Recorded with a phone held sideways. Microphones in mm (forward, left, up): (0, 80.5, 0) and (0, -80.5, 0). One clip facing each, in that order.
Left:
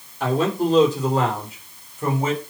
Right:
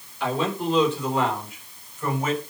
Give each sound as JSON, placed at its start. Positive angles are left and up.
{"t": 0.2, "sound": "a man speaking", "side_deg": 45, "distance_m": 4.0}